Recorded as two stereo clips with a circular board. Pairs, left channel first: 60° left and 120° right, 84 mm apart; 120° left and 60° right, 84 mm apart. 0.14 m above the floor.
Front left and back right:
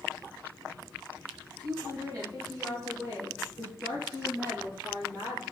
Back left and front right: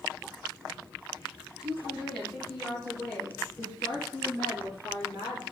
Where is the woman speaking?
140° right, 1.7 m; by 5.4 s 170° left, 3 m.